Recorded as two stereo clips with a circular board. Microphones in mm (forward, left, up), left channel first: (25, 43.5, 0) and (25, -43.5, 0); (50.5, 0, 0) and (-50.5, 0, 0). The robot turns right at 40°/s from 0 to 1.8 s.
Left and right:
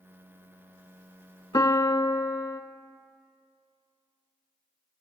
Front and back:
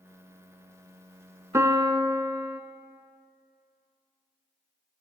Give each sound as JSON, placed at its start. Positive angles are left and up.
{"t": 1.5, "sound": "a piano", "azimuth_deg": 125, "distance_m": 0.6}